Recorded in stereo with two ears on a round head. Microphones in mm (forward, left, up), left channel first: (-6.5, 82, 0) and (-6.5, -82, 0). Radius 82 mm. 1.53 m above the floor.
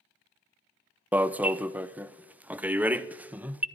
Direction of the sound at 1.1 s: 10° right (ahead or behind).